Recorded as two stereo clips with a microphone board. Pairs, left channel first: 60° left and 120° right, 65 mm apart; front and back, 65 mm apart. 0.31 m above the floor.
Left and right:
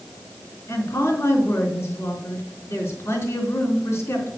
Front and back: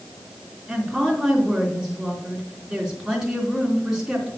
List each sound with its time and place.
0.7 s a woman speaking: 90° left, 2.5 m